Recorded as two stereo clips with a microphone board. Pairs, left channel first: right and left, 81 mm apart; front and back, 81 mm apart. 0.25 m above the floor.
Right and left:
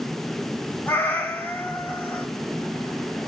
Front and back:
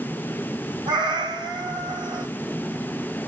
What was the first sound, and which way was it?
A cat meowing, 155° right.